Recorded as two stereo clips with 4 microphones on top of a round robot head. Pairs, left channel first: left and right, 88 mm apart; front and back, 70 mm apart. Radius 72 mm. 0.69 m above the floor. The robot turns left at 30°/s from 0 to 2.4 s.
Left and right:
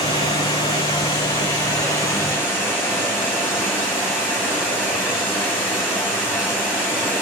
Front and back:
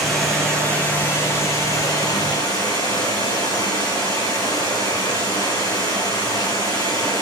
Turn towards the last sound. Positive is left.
turn(degrees=25)